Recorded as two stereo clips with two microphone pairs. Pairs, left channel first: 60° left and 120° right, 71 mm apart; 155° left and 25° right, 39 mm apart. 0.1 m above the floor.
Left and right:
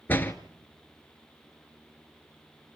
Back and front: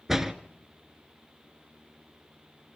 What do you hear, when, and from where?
0.1 s a door slam: 50° left, 1.2 m